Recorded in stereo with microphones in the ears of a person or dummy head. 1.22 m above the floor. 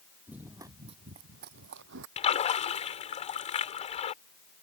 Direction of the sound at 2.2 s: 35° left (ahead or behind).